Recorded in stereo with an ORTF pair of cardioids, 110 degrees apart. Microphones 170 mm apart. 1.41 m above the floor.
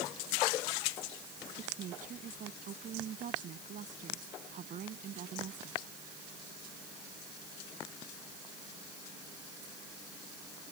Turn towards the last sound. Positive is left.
turn(degrees=-50)